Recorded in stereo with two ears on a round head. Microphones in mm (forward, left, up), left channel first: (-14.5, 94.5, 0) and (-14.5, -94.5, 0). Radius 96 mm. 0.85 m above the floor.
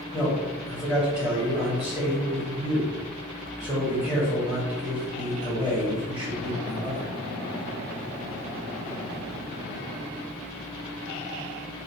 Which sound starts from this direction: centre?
A man speaking, at 0.1 s.